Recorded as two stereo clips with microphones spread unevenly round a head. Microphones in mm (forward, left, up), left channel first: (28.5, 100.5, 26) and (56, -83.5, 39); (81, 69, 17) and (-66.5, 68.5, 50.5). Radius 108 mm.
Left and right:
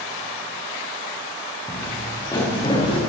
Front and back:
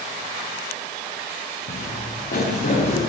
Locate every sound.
1.7 s footsteps: 10° left, 3.5 m; by 3.0 s 35° left, 4.5 m